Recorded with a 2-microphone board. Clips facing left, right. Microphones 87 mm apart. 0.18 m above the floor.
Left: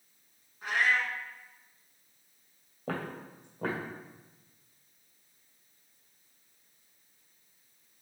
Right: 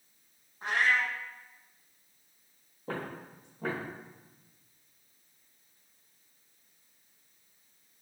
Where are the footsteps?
80° left, 1.7 m; by 3.9 s 65° left (ahead or behind), 2.5 m.